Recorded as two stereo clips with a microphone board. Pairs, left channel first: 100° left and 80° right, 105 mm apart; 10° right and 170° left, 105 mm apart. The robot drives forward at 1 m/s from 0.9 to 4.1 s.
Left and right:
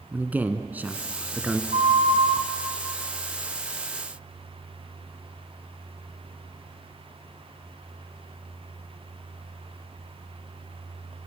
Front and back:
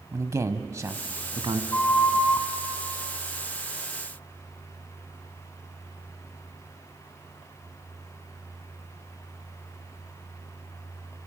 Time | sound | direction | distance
0.1 | a man speaking | 145° right | 1.4 m
1.7 | a flute | 85° right | 2.5 m